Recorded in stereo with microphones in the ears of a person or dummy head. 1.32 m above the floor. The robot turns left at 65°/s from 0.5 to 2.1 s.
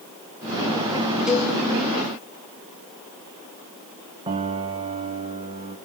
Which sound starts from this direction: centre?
A cowbell, at 1.3 s.